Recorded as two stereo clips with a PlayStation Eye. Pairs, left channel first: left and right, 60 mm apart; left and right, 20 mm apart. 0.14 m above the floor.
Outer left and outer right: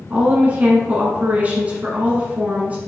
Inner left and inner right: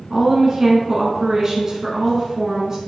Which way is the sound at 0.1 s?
25° right (ahead or behind).